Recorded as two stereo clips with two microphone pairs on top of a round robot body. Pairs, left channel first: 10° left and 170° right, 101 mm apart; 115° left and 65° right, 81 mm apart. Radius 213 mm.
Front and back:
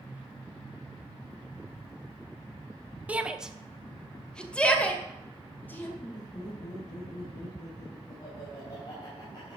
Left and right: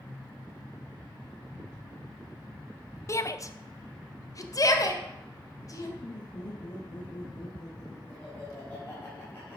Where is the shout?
115° left, 1.1 m; by 5.9 s 75° left, 2.5 m.